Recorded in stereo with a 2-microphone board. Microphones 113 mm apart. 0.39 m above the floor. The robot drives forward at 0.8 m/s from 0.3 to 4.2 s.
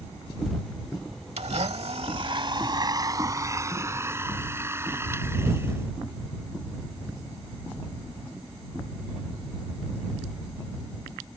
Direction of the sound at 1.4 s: 70° right (ahead or behind).